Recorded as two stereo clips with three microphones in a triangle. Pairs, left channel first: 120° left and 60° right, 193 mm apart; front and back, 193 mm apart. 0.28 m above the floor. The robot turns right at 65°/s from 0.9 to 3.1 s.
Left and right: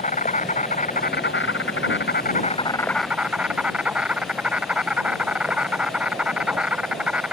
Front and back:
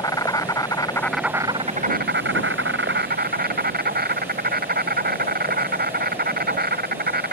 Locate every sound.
0.0 s an insect: 70° left; by 7.3 s 145° right